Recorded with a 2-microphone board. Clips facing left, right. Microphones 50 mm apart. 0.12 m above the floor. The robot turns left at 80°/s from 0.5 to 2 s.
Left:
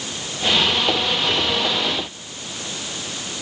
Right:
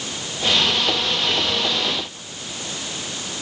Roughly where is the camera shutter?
I don't hear a camera shutter.